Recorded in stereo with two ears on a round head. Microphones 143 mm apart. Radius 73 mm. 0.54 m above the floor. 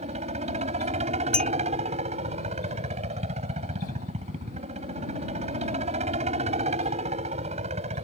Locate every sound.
0.0 s a helicopter: 45° right (ahead or behind)
1.3 s a clink: 5° left (ahead or behind)